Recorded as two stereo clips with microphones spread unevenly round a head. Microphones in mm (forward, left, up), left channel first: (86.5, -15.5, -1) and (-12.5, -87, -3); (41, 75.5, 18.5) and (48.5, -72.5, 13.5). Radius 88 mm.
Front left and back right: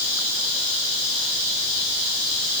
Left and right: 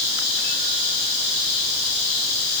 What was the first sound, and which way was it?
Only background noise.